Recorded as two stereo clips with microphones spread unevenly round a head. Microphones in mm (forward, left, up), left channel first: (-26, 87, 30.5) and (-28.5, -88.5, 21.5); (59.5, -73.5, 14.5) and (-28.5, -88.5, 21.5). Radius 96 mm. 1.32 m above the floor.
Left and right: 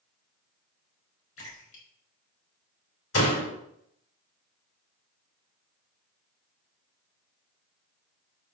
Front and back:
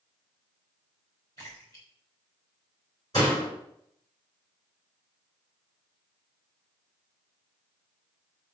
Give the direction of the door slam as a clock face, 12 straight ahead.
9 o'clock.